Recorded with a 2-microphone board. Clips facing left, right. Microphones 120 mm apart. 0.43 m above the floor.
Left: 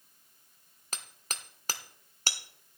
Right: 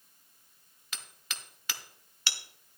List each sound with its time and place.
0.9 s hammering: 40° left (ahead or behind), 0.8 m